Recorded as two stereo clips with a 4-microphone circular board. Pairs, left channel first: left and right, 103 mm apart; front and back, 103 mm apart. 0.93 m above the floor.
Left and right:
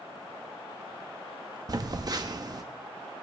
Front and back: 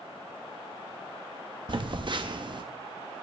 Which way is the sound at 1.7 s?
140° right.